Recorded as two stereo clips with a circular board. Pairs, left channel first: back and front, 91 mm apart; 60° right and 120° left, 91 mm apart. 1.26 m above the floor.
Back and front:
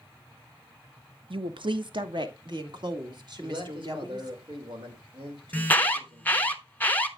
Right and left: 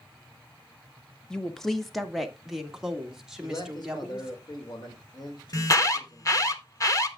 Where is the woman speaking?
20° left, 0.7 m; by 4.4 s 35° left, 2.5 m.